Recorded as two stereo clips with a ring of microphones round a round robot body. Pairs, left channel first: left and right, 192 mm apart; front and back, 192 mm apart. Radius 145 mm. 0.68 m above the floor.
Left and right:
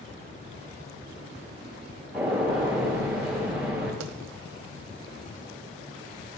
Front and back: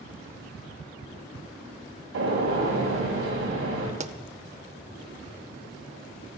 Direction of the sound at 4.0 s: 125° right.